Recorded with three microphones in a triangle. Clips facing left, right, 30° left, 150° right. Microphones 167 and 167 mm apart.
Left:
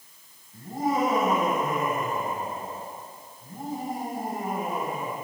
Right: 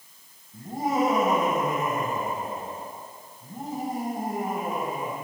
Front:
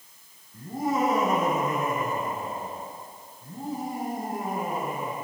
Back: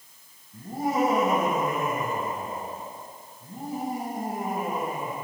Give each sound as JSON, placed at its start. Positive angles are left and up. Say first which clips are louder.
{"t": 0.5, "sound": "laughter", "louder": "even, back 1 dB", "azimuth_deg": -160, "distance_m": 5.5}